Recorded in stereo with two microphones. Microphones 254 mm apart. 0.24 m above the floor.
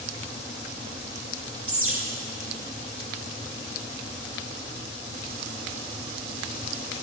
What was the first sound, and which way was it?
A bird, 55° right (ahead or behind).